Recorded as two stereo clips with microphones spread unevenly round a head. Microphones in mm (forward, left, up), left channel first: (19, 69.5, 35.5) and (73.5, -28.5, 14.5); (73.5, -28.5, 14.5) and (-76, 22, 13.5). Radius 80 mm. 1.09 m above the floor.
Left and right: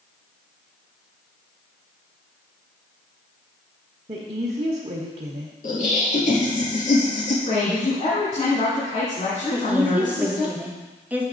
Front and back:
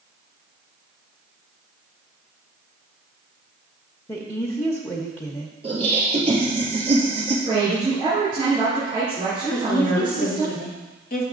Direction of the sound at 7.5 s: 100° left.